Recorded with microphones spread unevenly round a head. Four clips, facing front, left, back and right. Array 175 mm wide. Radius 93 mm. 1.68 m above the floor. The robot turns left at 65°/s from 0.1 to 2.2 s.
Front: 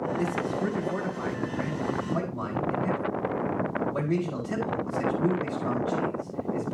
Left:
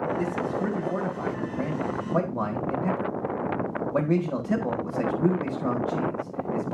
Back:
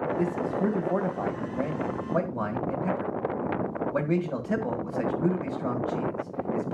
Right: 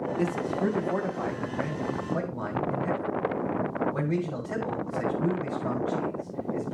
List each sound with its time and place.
0.2 s a man speaking: 120° right, 1.9 m; by 6.8 s 105° left, 1.9 m